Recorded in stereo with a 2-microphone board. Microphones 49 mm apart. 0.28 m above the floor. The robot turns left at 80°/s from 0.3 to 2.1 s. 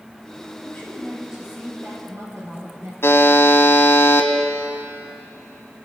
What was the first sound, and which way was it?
A woman speaking, 45° left.